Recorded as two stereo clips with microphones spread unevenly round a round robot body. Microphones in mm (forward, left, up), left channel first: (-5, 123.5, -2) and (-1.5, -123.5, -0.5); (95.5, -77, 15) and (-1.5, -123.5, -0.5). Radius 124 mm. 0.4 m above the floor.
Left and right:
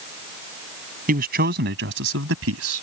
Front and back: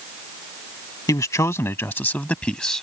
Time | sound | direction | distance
1.1 | a man speaking | 35° right | ?